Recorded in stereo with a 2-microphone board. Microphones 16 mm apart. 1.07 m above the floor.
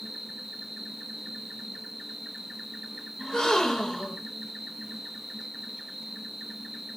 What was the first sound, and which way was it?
An insect, 15° right (ahead or behind).